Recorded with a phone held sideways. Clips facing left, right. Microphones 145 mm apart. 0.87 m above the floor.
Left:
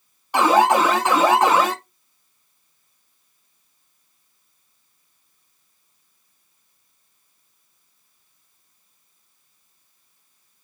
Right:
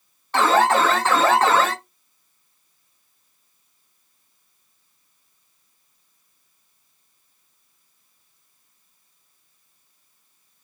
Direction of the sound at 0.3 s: 15° left (ahead or behind).